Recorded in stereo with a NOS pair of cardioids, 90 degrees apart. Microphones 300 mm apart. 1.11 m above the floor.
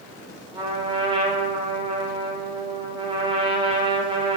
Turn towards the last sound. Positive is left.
turn(degrees=-20)